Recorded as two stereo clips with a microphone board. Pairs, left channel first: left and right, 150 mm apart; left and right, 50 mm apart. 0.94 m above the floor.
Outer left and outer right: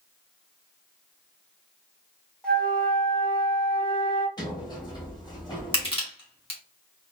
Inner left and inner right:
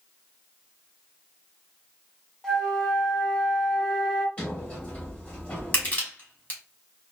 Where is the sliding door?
30° left (ahead or behind), 1.4 m.